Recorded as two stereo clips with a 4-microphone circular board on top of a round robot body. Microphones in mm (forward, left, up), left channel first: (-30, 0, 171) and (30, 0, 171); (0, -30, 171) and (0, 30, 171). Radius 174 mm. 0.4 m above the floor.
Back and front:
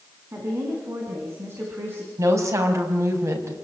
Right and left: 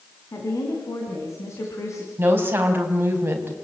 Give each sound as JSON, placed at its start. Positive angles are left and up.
{"t": 0.3, "sound": "a woman speaking", "azimuth_deg": -50, "distance_m": 5.5}
{"t": 2.2, "sound": "a woman speaking", "azimuth_deg": 35, "distance_m": 5.0}